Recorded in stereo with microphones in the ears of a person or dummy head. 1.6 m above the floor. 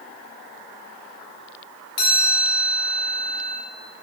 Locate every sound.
2.0 s a chime: 25° left (ahead or behind), 1.8 m